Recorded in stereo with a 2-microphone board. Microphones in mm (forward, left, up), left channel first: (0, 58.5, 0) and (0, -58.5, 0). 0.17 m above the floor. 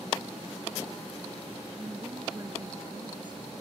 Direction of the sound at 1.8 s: 15° right (ahead or behind).